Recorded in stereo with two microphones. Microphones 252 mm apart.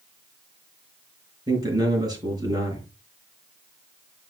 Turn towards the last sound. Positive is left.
turn(degrees=-15)  # may be behind; listen again after turning